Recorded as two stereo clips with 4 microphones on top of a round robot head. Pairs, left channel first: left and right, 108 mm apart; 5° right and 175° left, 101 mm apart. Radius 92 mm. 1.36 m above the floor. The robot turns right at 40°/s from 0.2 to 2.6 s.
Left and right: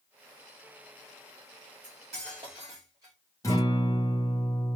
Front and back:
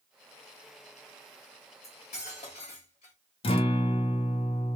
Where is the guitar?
20° left, 0.8 m.